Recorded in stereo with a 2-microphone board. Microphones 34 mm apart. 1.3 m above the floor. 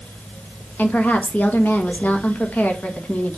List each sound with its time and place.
0.8 s a woman speaking: 60° left (ahead or behind), 1.3 m